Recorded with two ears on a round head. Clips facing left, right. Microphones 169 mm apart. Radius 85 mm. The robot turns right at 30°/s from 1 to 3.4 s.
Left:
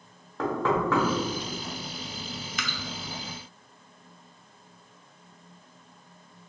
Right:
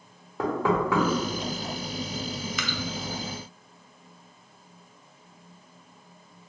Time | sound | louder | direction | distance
0.4 | knocking | right 1 dB | 10° right (ahead or behind) | 0.8 m
2.6 | dripping | right 4 dB | 75° right (ahead or behind) | 0.6 m